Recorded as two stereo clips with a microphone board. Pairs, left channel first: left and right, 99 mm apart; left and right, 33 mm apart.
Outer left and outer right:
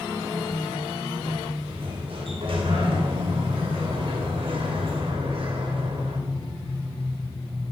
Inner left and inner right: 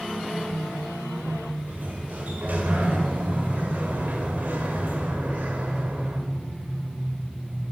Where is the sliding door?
65° right (ahead or behind), 2.5 m.